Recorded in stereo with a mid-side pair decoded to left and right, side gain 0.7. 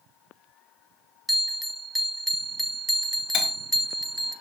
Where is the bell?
Straight ahead, 0.7 m.